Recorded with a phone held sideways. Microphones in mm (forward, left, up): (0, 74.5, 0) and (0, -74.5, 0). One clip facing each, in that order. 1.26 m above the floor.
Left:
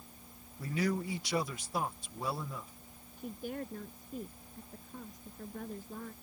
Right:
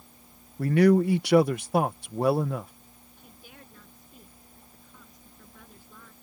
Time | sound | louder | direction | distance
0.6 | a man speaking | right 14 dB | 70° right (ahead or behind) | ?
3.2 | a woman speaking | left 13 dB | 45° left (ahead or behind) | ?